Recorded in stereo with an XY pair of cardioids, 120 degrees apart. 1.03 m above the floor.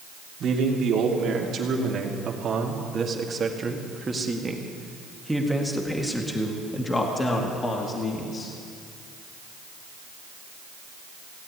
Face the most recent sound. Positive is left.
turn(degrees=40)